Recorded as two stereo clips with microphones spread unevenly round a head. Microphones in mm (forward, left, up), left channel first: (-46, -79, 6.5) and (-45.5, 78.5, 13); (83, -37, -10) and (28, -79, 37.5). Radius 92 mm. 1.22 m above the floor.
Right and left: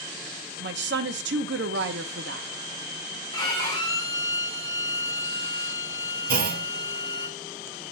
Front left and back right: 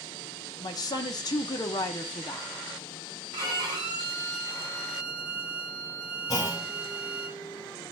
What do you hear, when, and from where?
0.6 s a woman speaking: 60° left, 0.9 m
3.3 s a violin: 155° right, 2.5 m
6.3 s a clunk: 115° left, 0.9 m